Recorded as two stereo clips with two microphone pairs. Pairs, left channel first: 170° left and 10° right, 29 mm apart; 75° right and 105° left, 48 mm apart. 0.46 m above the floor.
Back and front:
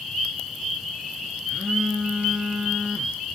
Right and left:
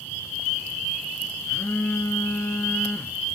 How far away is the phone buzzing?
About 2.5 m.